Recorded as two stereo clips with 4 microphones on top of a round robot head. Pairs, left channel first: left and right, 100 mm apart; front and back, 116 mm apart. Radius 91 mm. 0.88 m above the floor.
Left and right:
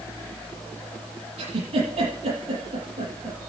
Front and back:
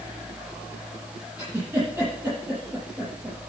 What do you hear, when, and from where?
1.4 s a giggle: 100° right, 7.5 m